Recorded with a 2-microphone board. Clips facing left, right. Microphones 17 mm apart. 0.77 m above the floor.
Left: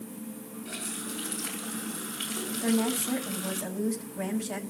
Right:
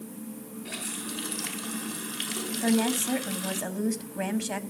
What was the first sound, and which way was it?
A running tap, 40° right (ahead or behind).